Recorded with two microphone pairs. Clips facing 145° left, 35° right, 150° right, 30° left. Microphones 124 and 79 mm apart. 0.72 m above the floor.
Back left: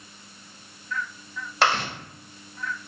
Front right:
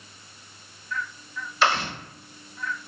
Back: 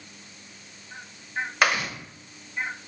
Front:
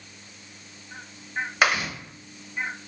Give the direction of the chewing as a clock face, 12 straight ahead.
8 o'clock.